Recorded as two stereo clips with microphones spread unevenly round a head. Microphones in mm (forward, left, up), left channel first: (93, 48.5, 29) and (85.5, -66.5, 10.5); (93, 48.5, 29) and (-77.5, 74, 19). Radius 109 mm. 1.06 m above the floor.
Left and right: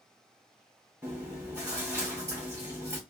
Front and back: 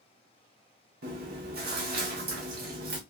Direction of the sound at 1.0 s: 170° right.